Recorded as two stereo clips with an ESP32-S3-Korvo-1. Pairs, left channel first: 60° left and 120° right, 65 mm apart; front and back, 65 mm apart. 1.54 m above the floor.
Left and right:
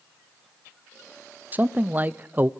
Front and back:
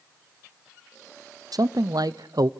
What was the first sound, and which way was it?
A man speaking, 175° left.